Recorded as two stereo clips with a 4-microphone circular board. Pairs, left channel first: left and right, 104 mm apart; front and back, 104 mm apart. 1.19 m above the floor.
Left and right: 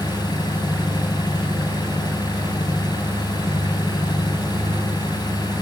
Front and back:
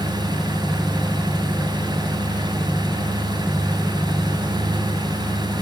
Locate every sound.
0.0 s an engine running: 140° left, 3.5 m